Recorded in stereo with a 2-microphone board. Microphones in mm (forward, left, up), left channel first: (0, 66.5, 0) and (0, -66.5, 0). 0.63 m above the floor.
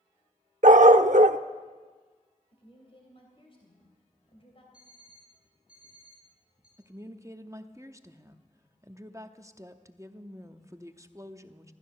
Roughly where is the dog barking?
Right.